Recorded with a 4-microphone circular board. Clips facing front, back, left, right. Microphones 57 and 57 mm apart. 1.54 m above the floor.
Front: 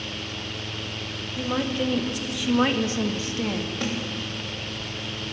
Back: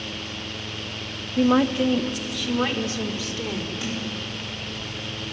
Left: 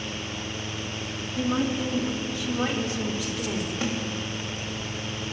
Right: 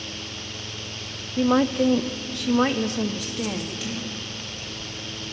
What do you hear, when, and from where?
1.4 s a woman speaking: 135° right, 0.9 m; by 3.7 s 50° right, 2.5 m
3.8 s a snare drum: 35° left, 3.5 m